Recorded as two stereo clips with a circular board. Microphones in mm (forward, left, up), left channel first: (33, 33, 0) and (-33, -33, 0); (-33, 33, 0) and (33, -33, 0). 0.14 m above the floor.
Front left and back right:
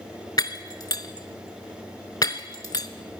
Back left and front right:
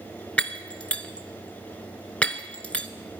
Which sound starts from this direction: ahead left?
Breaking glass, at 0.4 s.